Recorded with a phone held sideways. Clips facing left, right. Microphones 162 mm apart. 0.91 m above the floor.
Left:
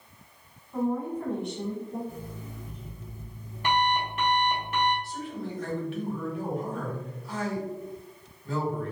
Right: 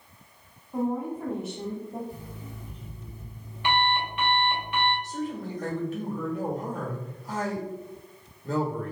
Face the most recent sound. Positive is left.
turn(degrees=-40)  # may be behind; listen again after turning